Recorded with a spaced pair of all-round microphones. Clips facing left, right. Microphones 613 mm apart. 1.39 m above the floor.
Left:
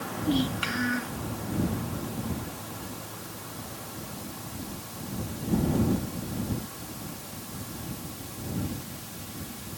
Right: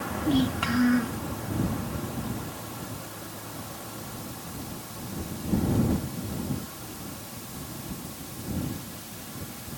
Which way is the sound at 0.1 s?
85° right.